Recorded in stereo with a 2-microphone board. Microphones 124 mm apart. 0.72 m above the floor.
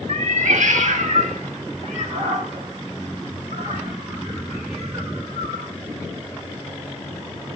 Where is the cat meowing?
70° right (ahead or behind), 0.8 m.